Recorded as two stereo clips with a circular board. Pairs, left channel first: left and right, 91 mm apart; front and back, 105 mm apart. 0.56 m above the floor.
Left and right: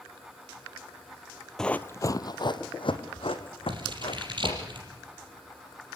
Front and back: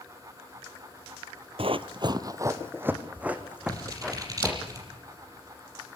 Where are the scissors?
125° right, 5 m.